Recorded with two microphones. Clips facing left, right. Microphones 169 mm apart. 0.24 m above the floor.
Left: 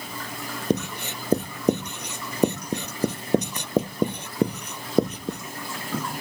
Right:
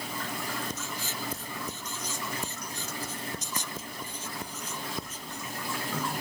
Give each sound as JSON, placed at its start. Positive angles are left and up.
{"t": 0.7, "sound": "writing", "side_deg": 75}